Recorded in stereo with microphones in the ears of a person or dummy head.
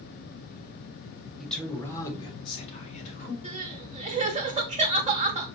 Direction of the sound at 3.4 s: 30° right (ahead or behind).